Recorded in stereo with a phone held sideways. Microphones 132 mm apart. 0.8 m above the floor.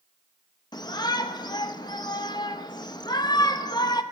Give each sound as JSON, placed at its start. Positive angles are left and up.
{"t": 0.7, "sound": "a shout", "side_deg": 35, "distance_m": 0.7}